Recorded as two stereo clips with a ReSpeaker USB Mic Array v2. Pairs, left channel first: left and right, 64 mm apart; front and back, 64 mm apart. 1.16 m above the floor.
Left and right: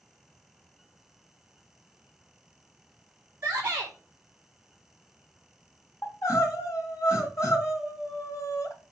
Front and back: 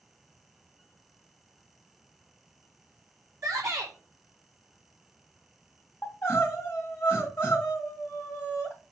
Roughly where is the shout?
Behind right.